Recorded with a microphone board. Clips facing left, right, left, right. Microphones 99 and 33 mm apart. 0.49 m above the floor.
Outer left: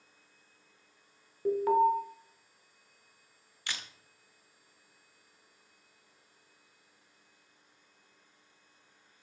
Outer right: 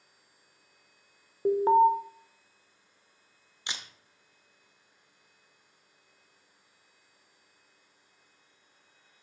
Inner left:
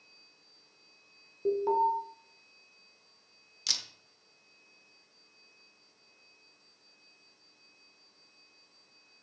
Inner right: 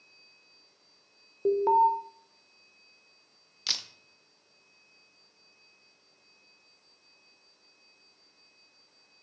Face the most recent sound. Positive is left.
turn(degrees=-20)  # may be behind; listen again after turning